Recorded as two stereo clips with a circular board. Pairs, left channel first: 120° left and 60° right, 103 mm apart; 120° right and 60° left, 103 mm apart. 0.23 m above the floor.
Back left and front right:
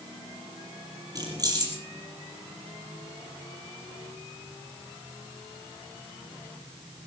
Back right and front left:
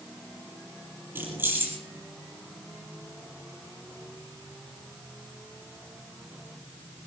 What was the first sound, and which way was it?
Keys jangling, 10° right.